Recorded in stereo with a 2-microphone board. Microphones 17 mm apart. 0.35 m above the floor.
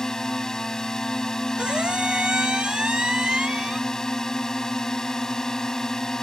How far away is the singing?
No singing in this recording.